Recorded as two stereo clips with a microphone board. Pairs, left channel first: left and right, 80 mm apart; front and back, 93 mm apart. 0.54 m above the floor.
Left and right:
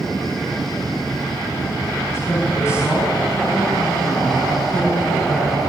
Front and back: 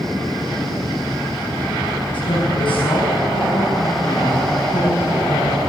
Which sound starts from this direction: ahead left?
A woman speaking, at 2.1 s.